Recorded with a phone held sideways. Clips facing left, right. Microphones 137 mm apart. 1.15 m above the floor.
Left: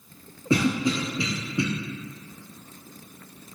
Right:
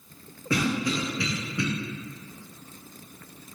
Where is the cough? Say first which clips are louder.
Left 3 dB; 25° left (ahead or behind), 0.5 m.